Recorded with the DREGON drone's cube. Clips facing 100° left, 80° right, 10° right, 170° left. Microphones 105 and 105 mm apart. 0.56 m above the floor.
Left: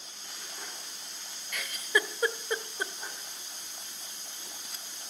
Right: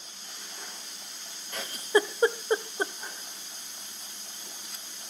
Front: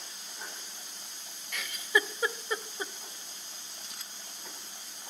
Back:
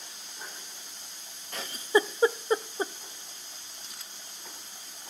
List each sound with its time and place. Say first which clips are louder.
1.5 s a giggle: right 6 dB, back 5 dB; 135° right, 0.7 m